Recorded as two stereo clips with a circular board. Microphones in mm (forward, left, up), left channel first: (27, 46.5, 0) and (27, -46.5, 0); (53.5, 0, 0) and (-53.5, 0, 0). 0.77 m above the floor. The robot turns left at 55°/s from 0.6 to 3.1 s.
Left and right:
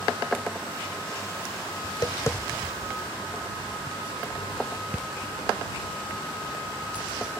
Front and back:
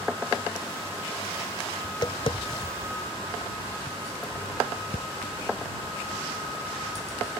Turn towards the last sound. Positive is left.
turn(degrees=-15)